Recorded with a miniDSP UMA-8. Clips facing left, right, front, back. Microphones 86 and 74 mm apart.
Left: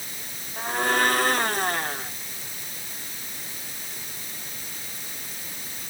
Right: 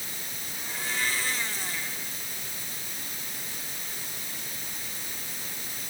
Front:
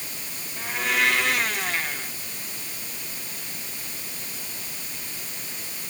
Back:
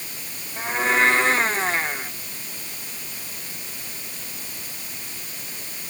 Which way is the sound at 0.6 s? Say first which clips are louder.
Left 11 dB, back 5 dB; 120° left.